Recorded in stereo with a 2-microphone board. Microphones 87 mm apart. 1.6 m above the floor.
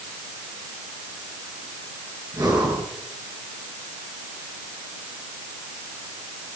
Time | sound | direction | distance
2.3 | breathing | 45° right (ahead or behind) | 9 m